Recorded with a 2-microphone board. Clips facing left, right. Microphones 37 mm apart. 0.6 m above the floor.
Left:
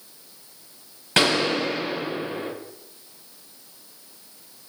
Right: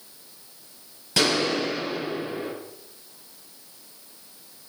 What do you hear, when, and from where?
1.2 s a gunshot: 50° left (ahead or behind), 7 m